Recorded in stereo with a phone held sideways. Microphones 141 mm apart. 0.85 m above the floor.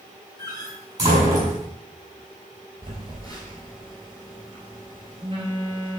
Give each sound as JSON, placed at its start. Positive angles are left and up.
{"t": 0.4, "sound": "a door slam", "side_deg": -25, "distance_m": 5.0}
{"t": 2.8, "sound": "a phone buzzing", "side_deg": -35, "distance_m": 4.5}